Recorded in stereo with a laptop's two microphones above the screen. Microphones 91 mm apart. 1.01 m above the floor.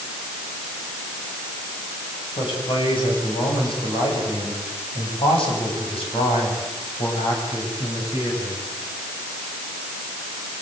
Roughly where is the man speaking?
Left.